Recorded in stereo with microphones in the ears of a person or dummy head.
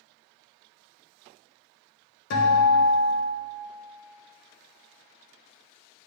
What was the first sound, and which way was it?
A guitar, 60° left (ahead or behind).